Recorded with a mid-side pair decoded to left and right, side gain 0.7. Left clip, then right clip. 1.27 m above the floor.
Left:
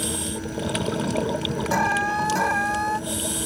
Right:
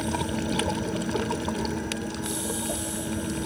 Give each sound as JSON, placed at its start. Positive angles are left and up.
{"t": 0.0, "sound": "a fan", "azimuth_deg": -5}
{"t": 1.7, "sound": "an alarm", "azimuth_deg": 65}